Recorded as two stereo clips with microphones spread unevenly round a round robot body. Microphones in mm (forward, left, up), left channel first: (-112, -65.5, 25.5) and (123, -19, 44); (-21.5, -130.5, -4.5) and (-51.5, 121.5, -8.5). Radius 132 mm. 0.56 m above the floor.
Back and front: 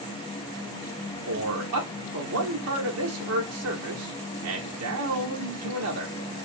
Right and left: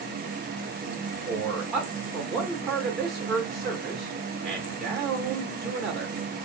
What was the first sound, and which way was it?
A man speaking, 10° left.